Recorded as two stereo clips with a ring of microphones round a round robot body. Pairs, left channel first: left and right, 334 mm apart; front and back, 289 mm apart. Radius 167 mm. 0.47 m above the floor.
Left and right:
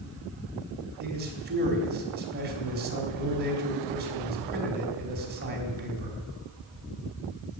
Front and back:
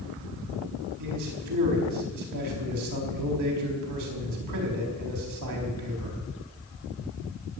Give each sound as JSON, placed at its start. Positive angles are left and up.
{"t": 1.0, "sound": "a man speaking", "azimuth_deg": -150, "distance_m": 4.0}